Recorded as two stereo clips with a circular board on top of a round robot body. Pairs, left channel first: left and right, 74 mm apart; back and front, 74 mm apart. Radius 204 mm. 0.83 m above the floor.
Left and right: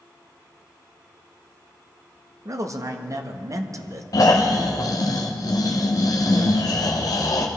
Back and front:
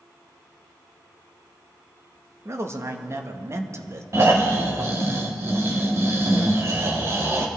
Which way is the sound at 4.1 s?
55° left.